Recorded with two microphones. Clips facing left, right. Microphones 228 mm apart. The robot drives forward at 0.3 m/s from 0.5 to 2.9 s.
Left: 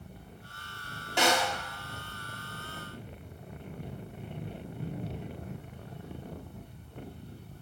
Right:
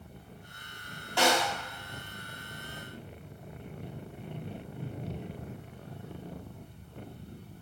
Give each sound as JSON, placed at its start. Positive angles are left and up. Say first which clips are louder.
{"t": 1.2, "sound": "a snare drum", "louder": "right 1 dB", "side_deg": 20, "distance_m": 0.9}